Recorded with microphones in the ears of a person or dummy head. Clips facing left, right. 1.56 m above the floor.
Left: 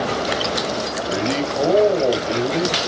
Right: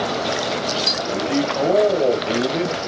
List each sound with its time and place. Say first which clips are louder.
1.0 s a man speaking: right 2 dB; 30° left (ahead or behind), 0.9 m; by 2.8 s 40° right (ahead or behind), 0.8 m